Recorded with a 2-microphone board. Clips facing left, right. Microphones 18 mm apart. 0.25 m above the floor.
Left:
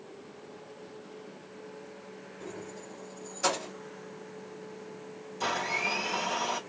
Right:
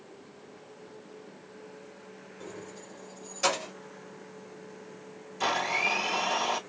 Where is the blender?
25° right (ahead or behind), 3.5 m.